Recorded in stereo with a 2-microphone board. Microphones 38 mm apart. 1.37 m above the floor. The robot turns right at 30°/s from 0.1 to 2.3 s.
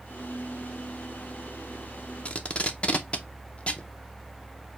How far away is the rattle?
I don't hear a rattle.